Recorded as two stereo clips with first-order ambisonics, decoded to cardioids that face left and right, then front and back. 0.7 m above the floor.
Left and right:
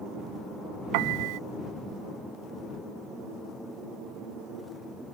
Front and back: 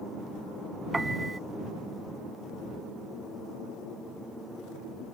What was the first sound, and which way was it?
A piano, 100° right.